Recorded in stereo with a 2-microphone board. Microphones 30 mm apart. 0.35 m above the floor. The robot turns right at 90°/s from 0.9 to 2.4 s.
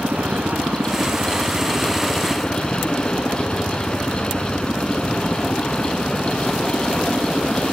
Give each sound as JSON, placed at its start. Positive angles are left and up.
{"t": 0.0, "sound": "a helicopter", "side_deg": -65}